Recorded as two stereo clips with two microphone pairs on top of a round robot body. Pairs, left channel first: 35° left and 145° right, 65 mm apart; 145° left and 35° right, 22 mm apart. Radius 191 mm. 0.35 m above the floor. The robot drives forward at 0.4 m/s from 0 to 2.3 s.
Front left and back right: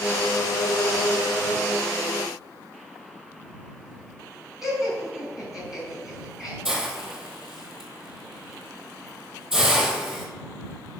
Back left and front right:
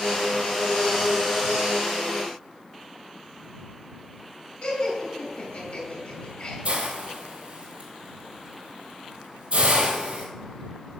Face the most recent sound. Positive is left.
turn(degrees=-65)